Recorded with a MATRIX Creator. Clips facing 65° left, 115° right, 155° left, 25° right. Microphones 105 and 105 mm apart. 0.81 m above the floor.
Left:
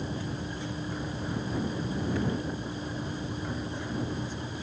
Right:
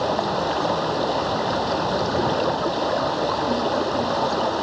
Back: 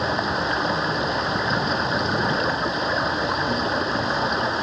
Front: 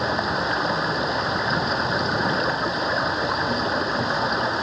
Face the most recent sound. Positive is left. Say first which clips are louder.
# right 14 dB, even
turn(degrees=-110)